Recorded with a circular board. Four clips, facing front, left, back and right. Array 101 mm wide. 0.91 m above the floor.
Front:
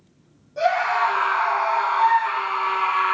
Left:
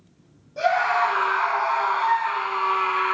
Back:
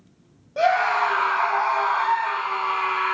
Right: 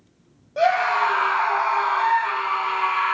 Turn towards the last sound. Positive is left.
turn(degrees=-45)